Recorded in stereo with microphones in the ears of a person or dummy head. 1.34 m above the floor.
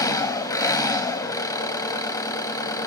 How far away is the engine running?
About 1.0 m.